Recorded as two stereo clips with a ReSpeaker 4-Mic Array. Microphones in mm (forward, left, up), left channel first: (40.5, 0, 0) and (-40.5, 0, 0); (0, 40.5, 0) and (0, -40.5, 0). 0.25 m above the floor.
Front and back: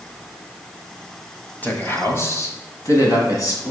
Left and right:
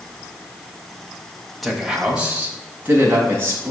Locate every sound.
1.6 s a man speaking: straight ahead, 1.1 m; by 3.7 s 30° right, 2 m